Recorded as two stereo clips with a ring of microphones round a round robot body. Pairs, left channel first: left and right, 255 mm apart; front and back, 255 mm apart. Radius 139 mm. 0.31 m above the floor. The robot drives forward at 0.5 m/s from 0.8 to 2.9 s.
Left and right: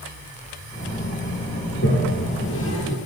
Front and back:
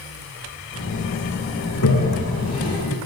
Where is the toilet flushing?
40° left, 7.5 m.